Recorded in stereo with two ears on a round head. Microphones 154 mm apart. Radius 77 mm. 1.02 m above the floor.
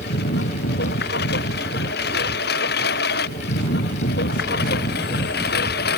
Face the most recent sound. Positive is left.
turn(degrees=65)  # may be behind; listen again after turning